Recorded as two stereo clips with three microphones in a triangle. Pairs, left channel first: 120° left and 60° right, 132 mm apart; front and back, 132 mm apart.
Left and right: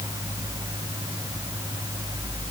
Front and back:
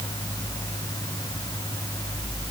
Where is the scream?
I don't hear a scream.